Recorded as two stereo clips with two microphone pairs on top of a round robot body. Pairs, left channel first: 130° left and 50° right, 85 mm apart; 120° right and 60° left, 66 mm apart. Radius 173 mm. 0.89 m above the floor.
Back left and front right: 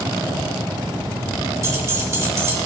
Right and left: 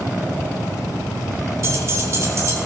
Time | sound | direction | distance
1.6 | keys jangling | 10° left | 3 m